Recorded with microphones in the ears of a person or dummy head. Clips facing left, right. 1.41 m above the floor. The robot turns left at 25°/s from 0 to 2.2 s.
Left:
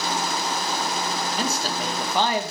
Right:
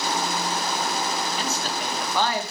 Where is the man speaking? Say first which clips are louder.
Left 2 dB; 40° left (ahead or behind), 1.6 m; by 2.5 s 15° left (ahead or behind), 1.6 m.